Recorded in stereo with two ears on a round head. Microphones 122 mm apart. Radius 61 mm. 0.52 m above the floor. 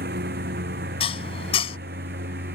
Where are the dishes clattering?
45° left (ahead or behind).